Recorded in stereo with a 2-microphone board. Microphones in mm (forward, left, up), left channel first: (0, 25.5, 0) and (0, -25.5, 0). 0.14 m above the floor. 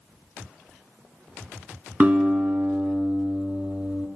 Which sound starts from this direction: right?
A guitar, at 2.0 s.